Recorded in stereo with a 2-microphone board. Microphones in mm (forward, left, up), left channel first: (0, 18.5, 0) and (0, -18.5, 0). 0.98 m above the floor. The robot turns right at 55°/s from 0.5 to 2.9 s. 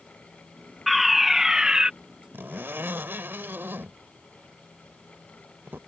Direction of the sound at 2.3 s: 65° right (ahead or behind).